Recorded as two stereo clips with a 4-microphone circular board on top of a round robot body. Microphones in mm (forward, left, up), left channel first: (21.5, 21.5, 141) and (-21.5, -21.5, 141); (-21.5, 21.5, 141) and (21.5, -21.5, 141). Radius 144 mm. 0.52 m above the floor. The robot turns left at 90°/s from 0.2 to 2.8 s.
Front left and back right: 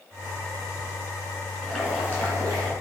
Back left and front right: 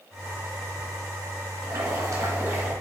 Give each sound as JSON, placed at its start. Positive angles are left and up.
{"t": 1.6, "sound": "boiling", "azimuth_deg": -20, "distance_m": 3.5}